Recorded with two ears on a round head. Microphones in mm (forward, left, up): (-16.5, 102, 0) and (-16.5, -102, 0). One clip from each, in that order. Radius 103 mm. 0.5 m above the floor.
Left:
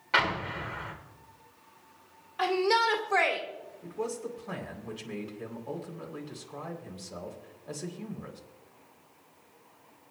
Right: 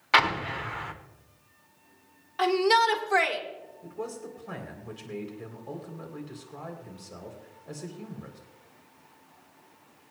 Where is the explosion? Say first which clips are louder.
Right 4 dB; 35° right (ahead or behind), 1.1 m.